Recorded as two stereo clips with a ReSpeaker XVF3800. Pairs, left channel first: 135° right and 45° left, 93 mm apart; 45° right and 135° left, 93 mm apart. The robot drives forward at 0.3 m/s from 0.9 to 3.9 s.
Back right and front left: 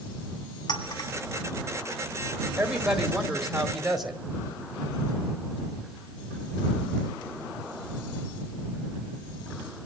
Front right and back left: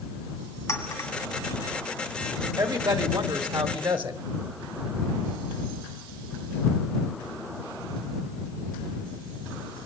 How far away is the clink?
About 2.0 m.